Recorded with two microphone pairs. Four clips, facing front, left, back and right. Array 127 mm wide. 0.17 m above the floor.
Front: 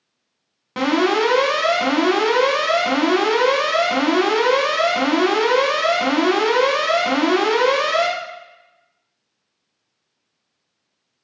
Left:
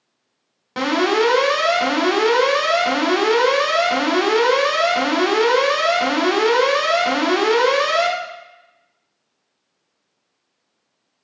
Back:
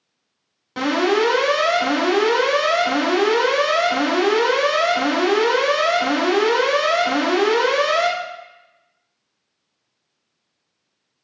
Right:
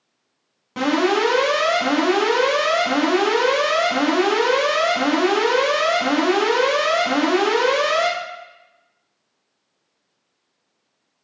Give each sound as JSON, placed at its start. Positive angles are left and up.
{"t": 0.8, "sound": "an alarm", "azimuth_deg": 45, "distance_m": 1.0}